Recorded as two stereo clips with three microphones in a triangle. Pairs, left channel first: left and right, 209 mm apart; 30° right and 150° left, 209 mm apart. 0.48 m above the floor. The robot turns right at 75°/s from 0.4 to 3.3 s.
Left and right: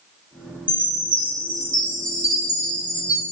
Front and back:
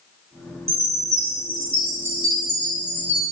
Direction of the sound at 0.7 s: 95° right.